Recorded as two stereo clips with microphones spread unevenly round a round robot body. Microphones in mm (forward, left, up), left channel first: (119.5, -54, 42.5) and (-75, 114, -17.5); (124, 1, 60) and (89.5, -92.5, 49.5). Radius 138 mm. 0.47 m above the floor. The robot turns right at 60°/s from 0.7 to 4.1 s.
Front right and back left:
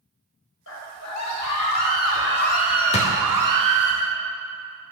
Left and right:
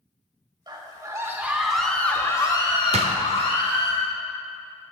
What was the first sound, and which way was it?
A scream, 85° right.